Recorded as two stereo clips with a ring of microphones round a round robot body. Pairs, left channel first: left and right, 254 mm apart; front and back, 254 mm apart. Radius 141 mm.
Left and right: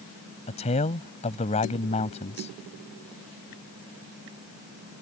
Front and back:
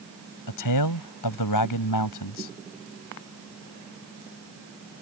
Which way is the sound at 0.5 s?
20° left.